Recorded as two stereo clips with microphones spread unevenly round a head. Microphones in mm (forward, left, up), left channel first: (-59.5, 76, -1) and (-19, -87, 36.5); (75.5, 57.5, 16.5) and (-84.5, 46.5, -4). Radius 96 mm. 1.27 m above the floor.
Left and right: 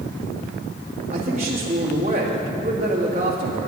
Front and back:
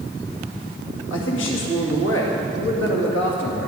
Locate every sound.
1.1 s a man speaking: 20° right, 2 m